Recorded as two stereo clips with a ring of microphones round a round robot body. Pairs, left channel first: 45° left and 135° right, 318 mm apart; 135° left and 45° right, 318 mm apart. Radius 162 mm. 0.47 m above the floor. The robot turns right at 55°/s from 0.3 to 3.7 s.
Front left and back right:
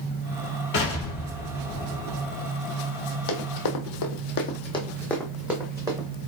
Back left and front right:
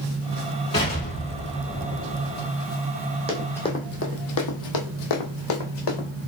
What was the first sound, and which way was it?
An explosion, 65° left.